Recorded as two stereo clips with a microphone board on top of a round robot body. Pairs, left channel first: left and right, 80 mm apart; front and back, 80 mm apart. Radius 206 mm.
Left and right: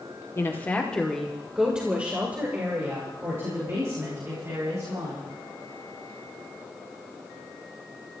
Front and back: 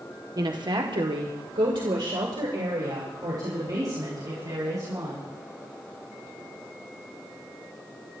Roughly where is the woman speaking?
Behind left.